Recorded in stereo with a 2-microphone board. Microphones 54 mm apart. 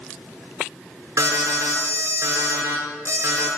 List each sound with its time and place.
1.2 s an alarm: 60° right (ahead or behind), 5 m